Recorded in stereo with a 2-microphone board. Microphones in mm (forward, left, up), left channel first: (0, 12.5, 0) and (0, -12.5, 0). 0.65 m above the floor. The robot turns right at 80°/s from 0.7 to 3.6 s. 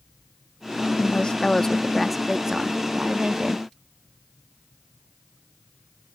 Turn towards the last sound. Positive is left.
turn(degrees=-60)